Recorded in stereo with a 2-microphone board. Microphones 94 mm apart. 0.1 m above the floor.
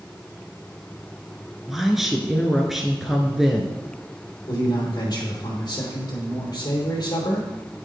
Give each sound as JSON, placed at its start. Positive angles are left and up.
{"t": 1.7, "sound": "a woman speaking", "side_deg": -5, "distance_m": 1.2}
{"t": 4.5, "sound": "a man speaking", "side_deg": 45, "distance_m": 2.5}